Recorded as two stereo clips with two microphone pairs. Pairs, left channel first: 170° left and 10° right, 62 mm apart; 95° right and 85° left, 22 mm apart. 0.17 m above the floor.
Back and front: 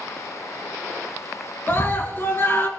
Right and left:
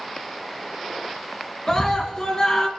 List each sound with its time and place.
1.7 s a scream: 150° right, 2.5 m